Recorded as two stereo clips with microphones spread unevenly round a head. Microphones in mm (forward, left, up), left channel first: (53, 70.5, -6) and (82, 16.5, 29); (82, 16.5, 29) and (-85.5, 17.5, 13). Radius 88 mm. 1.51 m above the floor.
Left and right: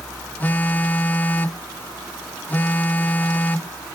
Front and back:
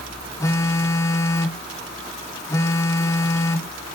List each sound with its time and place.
0.4 s a phone buzzing: 10° left, 0.8 m